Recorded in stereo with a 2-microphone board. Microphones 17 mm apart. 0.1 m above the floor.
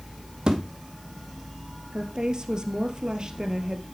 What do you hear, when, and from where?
0.5 s a thud: 65° right (ahead or behind), 3 m
1.9 s a woman speaking: 50° right (ahead or behind), 2.0 m